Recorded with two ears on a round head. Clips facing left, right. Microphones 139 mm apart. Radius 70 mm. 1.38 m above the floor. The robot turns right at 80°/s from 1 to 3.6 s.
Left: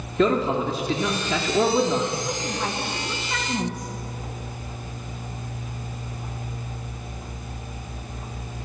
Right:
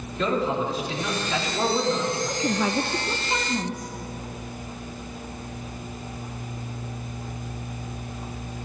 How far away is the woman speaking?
About 1.3 m.